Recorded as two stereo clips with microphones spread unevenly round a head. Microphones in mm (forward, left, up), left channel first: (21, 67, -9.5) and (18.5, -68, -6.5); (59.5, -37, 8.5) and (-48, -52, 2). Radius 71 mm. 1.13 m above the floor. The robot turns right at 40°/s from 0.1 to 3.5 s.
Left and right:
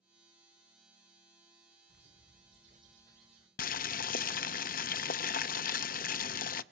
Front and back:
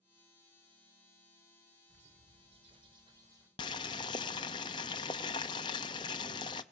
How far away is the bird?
About 2.5 m.